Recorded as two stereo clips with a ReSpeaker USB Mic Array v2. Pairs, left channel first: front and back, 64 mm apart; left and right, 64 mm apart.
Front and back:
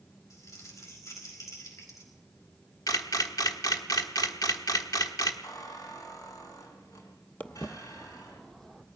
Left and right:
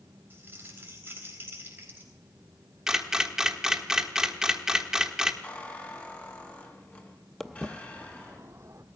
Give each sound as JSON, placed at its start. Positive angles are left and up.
{"t": 0.3, "sound": "crumpling", "azimuth_deg": -35, "distance_m": 4.0}
{"t": 2.9, "sound": "a camera shutter", "azimuth_deg": -10, "distance_m": 1.4}
{"t": 5.4, "sound": "a squeak", "azimuth_deg": 25, "distance_m": 3.5}
{"t": 7.4, "sound": "footsteps", "azimuth_deg": 15, "distance_m": 0.8}